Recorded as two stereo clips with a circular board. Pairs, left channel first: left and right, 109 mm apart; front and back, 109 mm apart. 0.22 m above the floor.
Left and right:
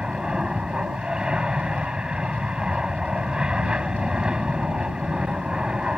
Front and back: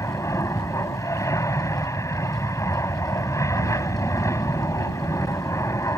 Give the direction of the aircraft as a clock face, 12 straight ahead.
1 o'clock.